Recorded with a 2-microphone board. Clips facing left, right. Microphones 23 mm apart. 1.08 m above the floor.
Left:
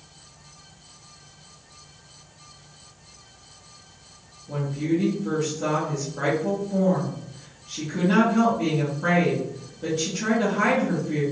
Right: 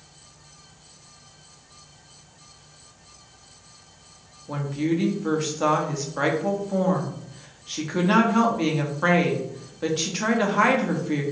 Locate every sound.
4.5 s a woman speaking: 50° right (ahead or behind), 0.9 m